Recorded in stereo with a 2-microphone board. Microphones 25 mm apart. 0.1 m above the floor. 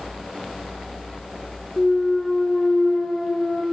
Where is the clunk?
25° left (ahead or behind), 3 m.